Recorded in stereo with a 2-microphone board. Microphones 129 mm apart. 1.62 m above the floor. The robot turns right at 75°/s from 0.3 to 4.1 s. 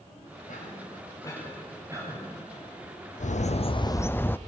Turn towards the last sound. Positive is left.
turn(degrees=165)